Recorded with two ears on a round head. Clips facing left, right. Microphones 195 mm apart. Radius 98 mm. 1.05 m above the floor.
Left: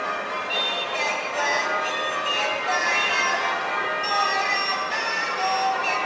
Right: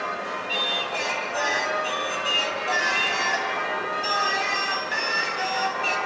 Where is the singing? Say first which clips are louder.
Left 1 dB; 15° right (ahead or behind), 4.5 m.